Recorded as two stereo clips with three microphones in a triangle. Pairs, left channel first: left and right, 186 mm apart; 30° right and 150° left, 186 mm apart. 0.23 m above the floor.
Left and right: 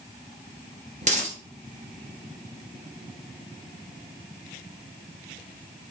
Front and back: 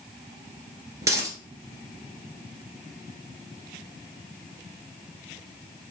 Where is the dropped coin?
135° right, 1.7 m.